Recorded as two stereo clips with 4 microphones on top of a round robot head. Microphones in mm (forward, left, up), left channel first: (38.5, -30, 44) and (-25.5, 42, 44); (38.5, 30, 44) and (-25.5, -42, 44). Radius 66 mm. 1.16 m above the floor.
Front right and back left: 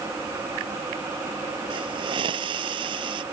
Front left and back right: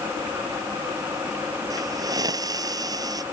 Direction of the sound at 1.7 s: 175° left.